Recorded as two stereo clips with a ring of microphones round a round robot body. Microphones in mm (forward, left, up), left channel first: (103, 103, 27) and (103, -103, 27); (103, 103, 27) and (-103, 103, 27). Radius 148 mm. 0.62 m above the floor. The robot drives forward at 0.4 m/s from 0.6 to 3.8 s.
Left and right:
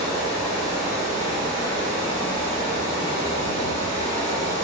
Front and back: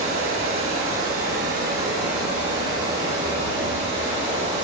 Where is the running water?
160° left, 0.9 m; by 4.7 s 170° left, 2 m.